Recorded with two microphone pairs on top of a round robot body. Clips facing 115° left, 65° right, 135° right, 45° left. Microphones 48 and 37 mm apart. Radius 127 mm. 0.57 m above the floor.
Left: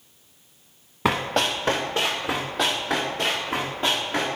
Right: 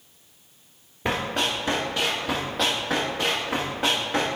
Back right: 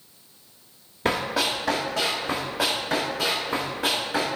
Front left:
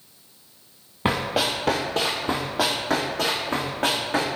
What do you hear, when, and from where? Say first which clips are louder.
1.1 s running footsteps: left 3 dB, front left 1 dB; 110° left, 0.8 m; by 4.3 s 5° left, 2.5 m